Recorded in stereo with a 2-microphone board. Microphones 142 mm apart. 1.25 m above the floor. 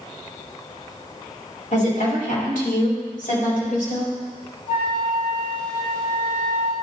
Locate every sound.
1.7 s a woman speaking: 65° left (ahead or behind), 3 m; by 4.1 s 80° left, 5 m
4.7 s a flute: 70° left (ahead or behind), 2.5 m